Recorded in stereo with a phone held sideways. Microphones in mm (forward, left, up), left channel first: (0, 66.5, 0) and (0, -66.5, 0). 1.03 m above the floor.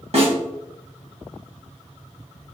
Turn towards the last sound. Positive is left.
turn(degrees=-50)  # may be behind; listen again after turning